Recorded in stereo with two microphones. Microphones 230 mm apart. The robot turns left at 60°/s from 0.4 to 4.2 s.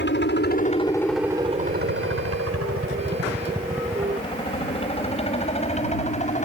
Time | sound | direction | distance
0.0 | a helicopter | 50° left (ahead or behind) | ?